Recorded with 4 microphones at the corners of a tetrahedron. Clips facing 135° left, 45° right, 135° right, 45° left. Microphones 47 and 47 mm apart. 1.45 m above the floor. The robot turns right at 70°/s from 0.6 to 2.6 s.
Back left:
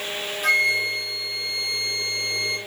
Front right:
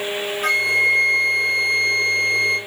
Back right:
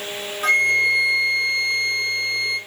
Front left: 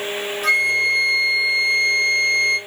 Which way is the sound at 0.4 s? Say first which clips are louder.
Front right 3 dB, back right 1 dB; 90° right.